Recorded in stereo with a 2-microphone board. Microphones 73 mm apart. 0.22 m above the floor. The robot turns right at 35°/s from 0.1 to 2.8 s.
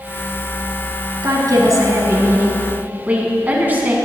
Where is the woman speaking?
85° right, 1.6 m; by 4.0 s 30° right, 1.6 m.